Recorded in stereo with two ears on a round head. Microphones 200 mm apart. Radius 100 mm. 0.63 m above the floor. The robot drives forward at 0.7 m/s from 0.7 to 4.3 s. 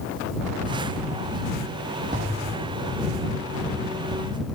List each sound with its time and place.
2.1 s an explosion: 40° right (ahead or behind), 1.9 m; by 3.3 s 25° right (ahead or behind), 2.5 m